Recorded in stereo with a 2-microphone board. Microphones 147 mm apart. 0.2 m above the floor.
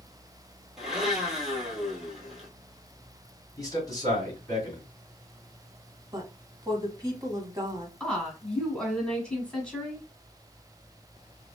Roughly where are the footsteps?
No footsteps in this recording.